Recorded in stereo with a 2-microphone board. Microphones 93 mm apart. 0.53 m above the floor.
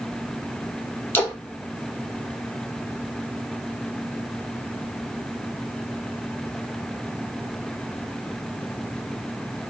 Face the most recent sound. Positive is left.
turn(degrees=25)  # may be behind; listen again after turning